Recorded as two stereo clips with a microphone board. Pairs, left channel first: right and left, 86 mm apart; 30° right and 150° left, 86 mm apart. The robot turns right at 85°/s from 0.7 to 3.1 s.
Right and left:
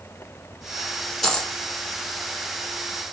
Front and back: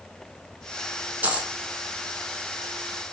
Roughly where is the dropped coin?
Behind.